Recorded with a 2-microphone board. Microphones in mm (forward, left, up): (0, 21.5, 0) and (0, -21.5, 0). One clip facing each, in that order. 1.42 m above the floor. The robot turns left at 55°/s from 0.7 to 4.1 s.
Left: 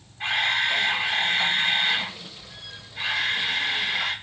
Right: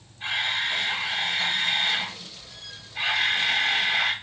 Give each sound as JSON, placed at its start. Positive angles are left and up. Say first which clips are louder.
{"t": 0.2, "sound": "a camera shutter", "louder": "left 3 dB", "azimuth_deg": 80, "distance_m": 1.1}